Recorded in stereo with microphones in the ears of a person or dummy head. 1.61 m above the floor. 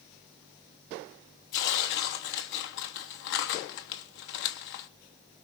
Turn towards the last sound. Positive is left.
turn(degrees=55)  # may be behind; listen again after turning